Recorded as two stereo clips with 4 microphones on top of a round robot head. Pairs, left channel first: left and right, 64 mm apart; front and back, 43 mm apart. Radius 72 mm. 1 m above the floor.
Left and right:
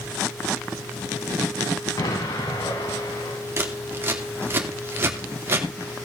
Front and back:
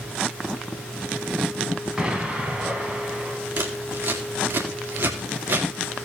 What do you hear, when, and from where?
2.0 s an explosion: 110° left, 3.5 m
3.6 s scissors: 145° right, 2.5 m